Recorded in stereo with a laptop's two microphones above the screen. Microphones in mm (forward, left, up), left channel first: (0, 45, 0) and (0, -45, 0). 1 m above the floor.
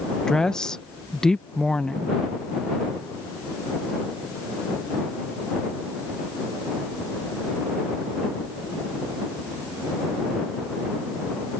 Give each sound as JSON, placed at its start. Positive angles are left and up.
{"t": 0.3, "sound": "a woman speaking", "side_deg": 5}